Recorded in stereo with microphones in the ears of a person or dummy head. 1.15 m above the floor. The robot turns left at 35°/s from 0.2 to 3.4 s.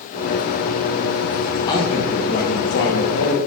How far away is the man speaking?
About 1.3 m.